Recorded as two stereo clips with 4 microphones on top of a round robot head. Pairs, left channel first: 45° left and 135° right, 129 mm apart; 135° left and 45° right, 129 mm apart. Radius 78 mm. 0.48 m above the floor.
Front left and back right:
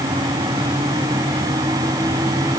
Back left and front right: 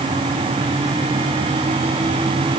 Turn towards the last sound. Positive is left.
No sound to turn to.